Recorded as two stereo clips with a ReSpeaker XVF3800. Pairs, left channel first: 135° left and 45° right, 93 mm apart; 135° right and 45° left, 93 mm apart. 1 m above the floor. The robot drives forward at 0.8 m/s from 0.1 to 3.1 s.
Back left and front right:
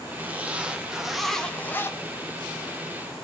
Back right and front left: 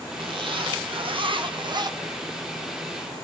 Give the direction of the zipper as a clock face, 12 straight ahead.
11 o'clock.